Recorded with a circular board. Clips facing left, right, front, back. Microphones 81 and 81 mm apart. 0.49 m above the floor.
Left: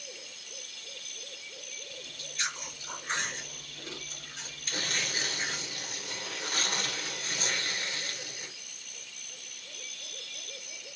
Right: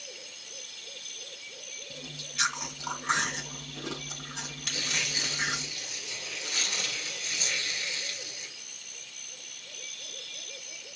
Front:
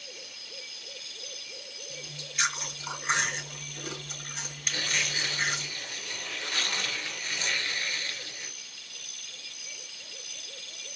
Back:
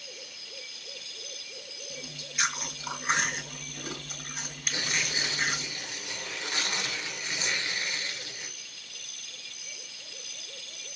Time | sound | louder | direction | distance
1.9 | chewing | right 6 dB, even | 95° right | 2.5 m
4.7 | tearing paper | left 2 dB, even | 115° left | 2 m